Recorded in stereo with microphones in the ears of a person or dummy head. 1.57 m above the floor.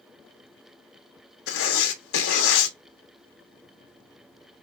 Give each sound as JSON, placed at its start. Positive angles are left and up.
{"t": 1.5, "sound": "writing", "side_deg": 80, "distance_m": 1.0}